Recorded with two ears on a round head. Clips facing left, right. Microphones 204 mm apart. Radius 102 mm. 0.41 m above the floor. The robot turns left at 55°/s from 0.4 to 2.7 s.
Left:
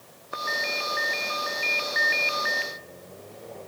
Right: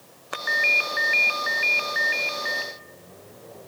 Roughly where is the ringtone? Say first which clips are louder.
Right 1 dB; right.